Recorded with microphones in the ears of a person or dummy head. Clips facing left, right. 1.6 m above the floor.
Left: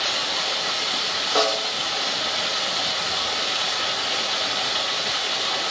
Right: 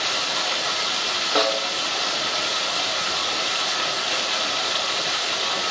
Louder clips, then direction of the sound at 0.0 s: Right 1 dB; 70° right (ahead or behind).